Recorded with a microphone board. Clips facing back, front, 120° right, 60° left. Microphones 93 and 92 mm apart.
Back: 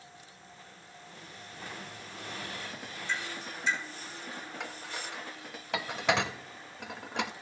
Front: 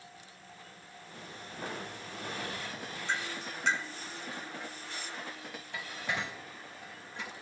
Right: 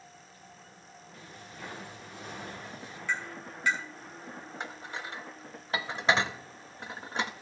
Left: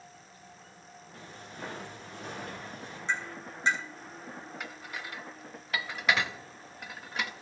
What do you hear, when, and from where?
1.1 s footsteps: 10° left, 6 m; by 3.0 s 20° left, 6.5 m
3.1 s tapping: 5° right, 6.5 m
4.6 s dishes clattering: straight behind, 0.6 m